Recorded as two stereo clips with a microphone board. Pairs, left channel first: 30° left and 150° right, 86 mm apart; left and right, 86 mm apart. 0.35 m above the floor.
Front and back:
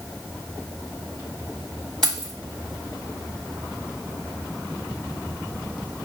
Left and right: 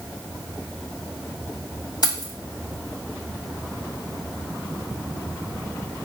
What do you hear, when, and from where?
2.0 s keys jangling: 110° left, 1.6 m